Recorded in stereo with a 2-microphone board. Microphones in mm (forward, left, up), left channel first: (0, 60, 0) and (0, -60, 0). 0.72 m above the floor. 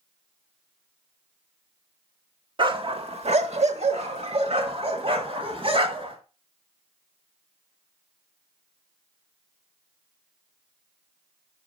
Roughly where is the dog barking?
Right.